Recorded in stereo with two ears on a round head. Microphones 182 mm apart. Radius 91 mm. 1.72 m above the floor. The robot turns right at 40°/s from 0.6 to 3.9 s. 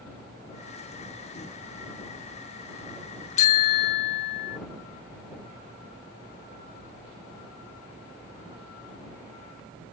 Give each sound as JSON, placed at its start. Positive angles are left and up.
{"t": 3.4, "sound": "a bicycle bell", "side_deg": 35}